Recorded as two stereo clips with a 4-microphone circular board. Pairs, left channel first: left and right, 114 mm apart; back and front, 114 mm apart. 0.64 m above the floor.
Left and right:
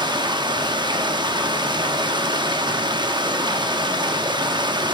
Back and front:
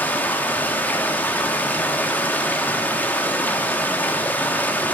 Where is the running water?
110° right, 0.9 m.